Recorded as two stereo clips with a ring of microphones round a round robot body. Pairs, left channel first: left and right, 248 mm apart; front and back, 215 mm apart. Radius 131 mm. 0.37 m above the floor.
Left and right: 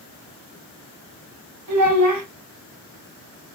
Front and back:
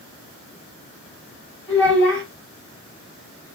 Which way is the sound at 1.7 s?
85° right.